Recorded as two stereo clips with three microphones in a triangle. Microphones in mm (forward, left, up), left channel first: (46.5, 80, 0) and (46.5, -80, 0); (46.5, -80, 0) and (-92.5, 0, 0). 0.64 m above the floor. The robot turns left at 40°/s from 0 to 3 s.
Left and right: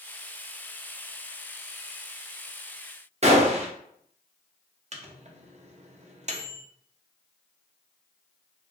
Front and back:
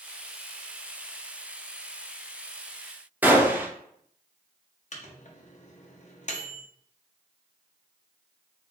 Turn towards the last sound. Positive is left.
turn(degrees=-55)